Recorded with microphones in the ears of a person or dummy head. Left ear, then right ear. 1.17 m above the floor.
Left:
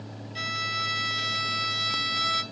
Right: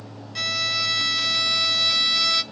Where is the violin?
25° right (ahead or behind), 0.5 m.